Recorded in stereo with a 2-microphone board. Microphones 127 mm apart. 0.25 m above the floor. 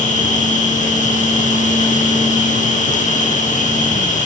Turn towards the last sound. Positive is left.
turn(degrees=85)